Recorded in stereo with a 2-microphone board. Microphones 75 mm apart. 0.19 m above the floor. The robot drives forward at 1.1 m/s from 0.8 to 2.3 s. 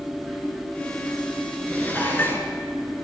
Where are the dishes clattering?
20° left (ahead or behind), 2 m; by 2.5 s 30° left (ahead or behind), 1.7 m.